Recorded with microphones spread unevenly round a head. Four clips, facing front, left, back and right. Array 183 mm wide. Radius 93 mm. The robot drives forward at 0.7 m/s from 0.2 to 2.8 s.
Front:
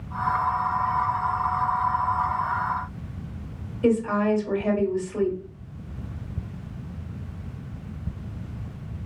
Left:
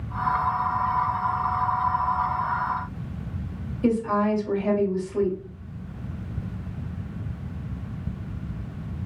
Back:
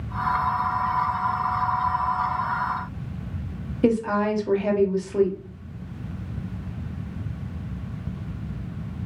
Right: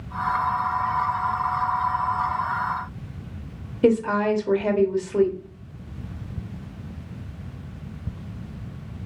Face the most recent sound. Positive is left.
turn(degrees=-125)